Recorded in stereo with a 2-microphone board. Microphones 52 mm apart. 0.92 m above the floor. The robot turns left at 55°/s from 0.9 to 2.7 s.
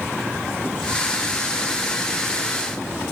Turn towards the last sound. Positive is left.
No sound to turn to.